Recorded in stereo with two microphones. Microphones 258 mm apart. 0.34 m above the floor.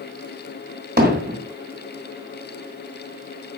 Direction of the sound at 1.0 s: 40° right (ahead or behind).